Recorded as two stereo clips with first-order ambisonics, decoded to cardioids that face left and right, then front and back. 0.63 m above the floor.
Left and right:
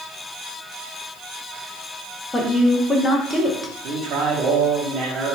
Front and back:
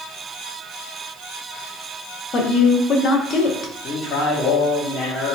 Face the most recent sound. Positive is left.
turn(degrees=-55)